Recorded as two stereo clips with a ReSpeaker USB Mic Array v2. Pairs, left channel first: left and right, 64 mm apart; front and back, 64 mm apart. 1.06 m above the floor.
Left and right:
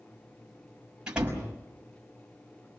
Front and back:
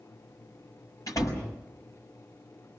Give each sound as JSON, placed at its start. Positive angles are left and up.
{"t": 1.1, "sound": "a door slam", "azimuth_deg": -15, "distance_m": 5.5}